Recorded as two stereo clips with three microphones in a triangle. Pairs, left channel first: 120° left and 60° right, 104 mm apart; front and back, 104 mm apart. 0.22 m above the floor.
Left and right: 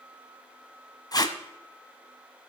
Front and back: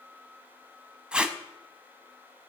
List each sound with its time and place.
1.1 s tape being pulled: 105° left, 0.8 m